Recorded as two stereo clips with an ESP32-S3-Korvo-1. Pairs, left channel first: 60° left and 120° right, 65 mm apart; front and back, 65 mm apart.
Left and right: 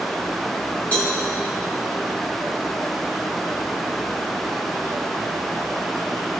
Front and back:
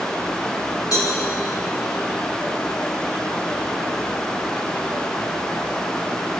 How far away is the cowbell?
About 4 m.